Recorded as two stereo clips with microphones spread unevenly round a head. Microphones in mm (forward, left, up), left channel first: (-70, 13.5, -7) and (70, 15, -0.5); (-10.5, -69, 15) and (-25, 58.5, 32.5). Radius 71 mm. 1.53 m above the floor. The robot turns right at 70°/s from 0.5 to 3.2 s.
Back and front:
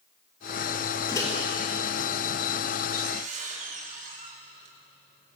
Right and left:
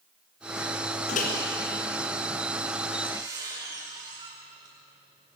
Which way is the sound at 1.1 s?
110° right.